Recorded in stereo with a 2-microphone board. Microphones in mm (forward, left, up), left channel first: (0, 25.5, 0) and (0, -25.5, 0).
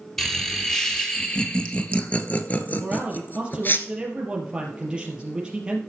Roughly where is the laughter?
Centre.